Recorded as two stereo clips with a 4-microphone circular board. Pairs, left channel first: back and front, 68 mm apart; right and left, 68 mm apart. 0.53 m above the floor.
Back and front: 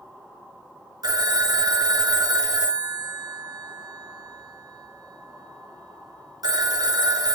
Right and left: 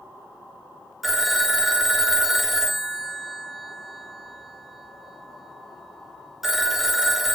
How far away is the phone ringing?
About 0.7 m.